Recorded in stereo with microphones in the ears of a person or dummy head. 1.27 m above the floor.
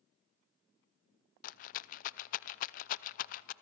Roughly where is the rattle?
Left.